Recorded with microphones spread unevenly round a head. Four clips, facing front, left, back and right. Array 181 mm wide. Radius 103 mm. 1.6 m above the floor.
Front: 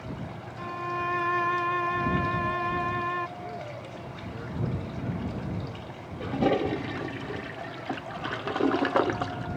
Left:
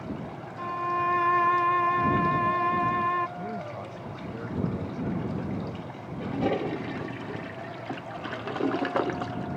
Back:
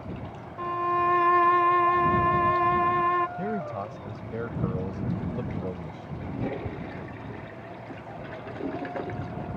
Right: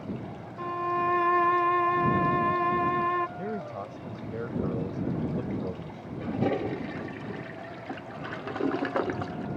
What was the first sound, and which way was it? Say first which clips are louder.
A violin: even, back 7 dB; 155° left.